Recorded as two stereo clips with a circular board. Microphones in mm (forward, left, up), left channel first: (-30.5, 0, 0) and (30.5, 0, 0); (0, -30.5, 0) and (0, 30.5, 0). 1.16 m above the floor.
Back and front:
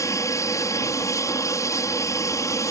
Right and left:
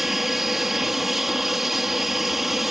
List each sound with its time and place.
0.0 s an aircraft: 175° left